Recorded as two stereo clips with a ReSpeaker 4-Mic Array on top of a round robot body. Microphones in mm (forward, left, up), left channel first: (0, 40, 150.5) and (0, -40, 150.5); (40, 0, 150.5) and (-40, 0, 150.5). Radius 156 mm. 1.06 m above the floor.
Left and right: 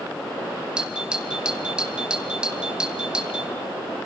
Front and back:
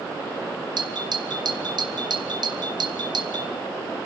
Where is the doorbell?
170° right, 2.5 m.